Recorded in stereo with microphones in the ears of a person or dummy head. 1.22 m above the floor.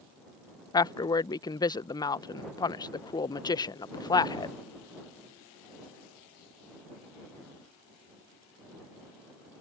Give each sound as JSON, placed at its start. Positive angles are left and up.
{"t": 0.7, "sound": "a woman speaking", "side_deg": 15}